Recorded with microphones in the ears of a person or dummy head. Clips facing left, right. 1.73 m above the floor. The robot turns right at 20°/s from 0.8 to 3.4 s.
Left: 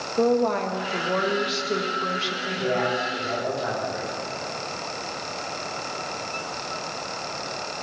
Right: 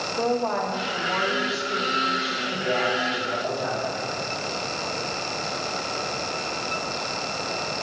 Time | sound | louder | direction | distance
0.2 | a woman speaking | left 4 dB | 40° left | 2.0 m
2.5 | a man speaking | left 1 dB | 50° left (ahead or behind) | 6.5 m